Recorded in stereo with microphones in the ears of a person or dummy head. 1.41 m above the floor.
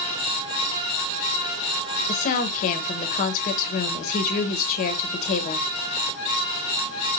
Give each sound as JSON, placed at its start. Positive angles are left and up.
{"t": 2.1, "sound": "a woman speaking", "side_deg": 45, "distance_m": 1.1}